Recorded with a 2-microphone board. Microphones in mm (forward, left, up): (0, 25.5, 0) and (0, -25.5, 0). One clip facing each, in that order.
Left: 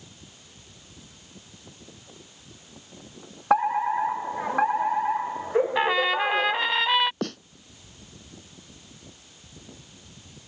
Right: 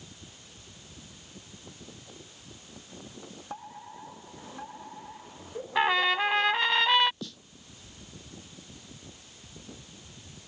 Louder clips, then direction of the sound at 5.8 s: Left 2 dB; 5° left (ahead or behind).